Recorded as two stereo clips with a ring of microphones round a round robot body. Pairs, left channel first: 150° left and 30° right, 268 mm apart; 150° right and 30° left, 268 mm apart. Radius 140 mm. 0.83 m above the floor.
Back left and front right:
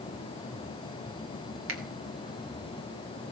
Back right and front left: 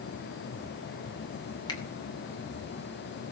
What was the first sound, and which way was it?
A finger snap, 75° right.